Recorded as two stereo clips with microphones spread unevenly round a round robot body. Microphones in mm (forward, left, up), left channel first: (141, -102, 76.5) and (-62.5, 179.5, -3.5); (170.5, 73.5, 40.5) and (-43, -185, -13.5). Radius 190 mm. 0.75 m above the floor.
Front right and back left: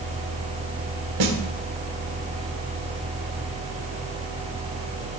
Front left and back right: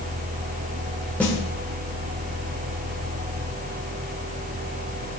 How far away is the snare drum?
About 2 m.